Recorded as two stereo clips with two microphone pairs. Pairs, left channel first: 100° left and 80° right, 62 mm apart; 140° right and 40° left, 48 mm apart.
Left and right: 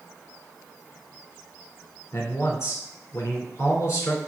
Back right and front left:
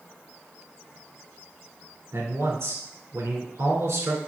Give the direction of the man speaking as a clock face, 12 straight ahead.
10 o'clock.